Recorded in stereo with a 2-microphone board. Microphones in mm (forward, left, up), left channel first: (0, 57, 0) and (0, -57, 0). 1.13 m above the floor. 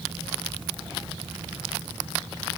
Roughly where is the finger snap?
No finger snap in this recording.